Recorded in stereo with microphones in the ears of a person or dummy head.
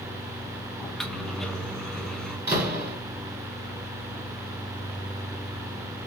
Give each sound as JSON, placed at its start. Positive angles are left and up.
{"t": 0.8, "sound": "a microwave", "side_deg": 5, "distance_m": 0.9}
{"t": 2.5, "sound": "a door slam", "side_deg": -10, "distance_m": 3.5}